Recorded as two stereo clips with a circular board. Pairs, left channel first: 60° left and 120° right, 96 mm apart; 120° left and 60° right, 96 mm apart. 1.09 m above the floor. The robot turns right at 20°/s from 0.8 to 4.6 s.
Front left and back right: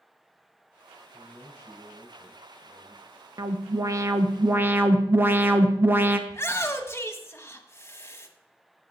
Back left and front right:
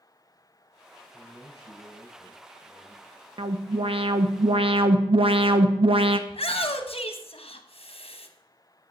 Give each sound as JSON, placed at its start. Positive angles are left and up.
{"t": 1.1, "sound": "a man speaking", "azimuth_deg": 105, "distance_m": 4.0}
{"t": 3.4, "sound": "an alarm", "azimuth_deg": -75, "distance_m": 0.7}
{"t": 6.3, "sound": "a shout", "azimuth_deg": 125, "distance_m": 1.1}